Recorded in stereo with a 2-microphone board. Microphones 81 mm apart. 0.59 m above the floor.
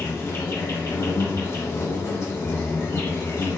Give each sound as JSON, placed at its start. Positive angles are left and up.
{"t": 0.0, "sound": "an insect", "side_deg": 35, "distance_m": 1.2}